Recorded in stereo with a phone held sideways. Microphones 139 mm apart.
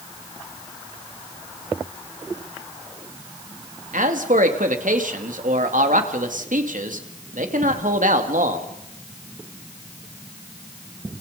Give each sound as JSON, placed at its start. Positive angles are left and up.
{"t": 3.9, "sound": "a man speaking", "side_deg": -80, "distance_m": 2.5}